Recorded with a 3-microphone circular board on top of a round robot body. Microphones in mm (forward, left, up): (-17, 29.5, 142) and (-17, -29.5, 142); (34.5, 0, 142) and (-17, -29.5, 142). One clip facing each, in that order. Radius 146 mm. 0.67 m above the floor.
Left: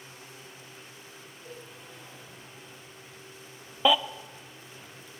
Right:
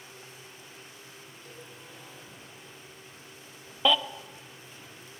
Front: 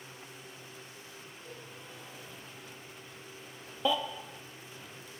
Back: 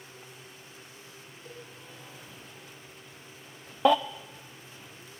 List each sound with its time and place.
1.4 s a cowbell: 160° left, 7.5 m
3.9 s a baby crying: 175° left, 0.5 m